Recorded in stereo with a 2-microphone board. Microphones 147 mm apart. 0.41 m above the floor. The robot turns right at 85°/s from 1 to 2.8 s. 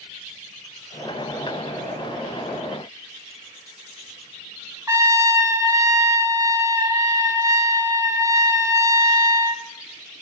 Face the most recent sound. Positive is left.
turn(degrees=-20)  # may be behind; listen again after turning